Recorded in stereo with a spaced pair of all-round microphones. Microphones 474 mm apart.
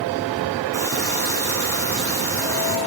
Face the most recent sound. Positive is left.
turn(degrees=5)  # may be behind; listen again after turning